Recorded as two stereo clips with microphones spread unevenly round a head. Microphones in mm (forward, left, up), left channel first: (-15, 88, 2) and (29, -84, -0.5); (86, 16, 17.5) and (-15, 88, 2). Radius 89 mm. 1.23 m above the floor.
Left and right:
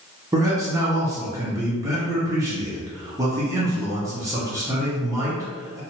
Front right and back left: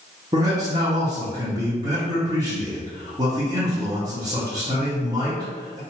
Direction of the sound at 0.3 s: 150° right.